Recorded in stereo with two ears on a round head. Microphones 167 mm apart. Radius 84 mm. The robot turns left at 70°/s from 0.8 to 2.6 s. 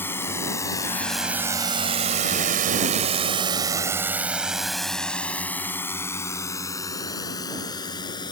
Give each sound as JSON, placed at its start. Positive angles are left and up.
{"t": 0.0, "sound": "a drone", "side_deg": 10}